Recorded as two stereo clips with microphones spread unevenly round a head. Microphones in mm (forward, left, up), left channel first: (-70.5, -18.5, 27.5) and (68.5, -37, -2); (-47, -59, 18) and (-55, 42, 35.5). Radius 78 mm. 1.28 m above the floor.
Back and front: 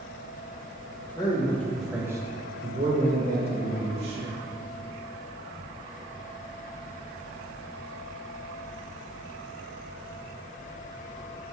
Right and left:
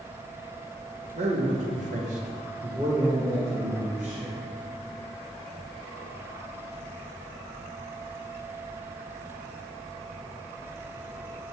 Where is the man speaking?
105° left, 1.2 m; by 4.4 s 10° left, 2.0 m.